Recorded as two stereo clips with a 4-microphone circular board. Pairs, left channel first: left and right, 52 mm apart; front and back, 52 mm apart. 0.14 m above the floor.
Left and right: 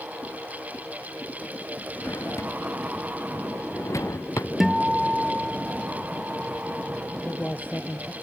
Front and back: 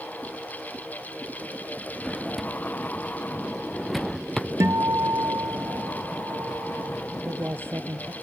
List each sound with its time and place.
2.0 s a drawer: 85° left
4.6 s a guitar: 175° right
7.1 s a man speaking: 145° left